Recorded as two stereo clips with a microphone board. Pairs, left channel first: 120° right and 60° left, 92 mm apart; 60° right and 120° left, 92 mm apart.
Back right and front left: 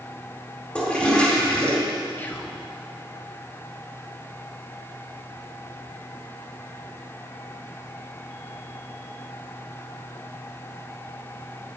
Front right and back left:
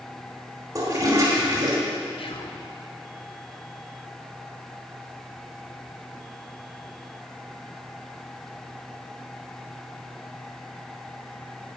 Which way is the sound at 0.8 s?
165° left.